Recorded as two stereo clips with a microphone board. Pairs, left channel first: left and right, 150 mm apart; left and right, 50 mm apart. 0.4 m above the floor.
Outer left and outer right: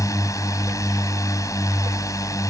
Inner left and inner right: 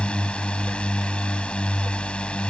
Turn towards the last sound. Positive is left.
turn(degrees=20)  # may be behind; listen again after turning